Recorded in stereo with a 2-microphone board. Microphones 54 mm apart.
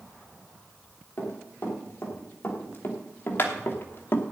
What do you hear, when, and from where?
1.2 s running footsteps: 35° left (ahead or behind), 6 m; by 4.3 s 40° left (ahead or behind), 1.5 m